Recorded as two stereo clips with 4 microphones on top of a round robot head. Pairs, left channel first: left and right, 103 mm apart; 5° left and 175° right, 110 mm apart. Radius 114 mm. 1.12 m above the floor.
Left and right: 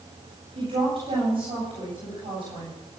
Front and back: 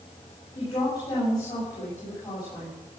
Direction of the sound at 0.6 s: 55° right.